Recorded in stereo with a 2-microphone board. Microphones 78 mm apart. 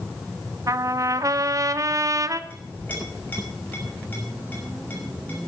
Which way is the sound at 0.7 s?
45° right (ahead or behind).